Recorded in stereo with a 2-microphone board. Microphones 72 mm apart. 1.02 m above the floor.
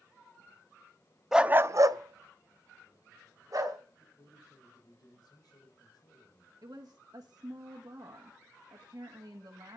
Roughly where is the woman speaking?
Right.